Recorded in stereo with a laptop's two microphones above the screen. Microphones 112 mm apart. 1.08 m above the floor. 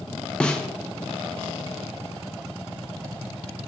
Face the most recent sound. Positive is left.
turn(degrees=10)  # may be behind; listen again after turning